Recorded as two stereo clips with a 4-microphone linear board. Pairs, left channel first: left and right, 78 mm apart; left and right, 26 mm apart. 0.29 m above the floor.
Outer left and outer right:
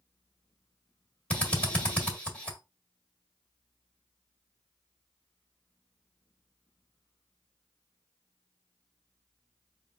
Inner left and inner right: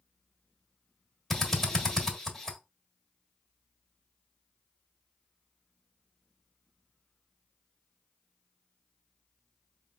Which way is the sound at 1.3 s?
15° left (ahead or behind).